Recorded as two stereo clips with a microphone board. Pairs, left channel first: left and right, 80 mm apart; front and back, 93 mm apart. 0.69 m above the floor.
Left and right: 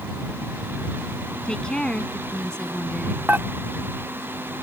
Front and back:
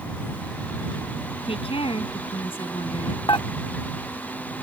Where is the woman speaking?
10° left.